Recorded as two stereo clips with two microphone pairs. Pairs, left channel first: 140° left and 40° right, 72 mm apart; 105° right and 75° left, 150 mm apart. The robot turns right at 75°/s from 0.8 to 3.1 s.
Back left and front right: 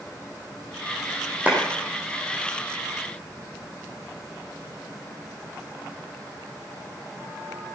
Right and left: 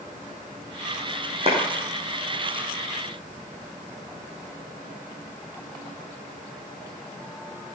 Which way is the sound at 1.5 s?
30° left.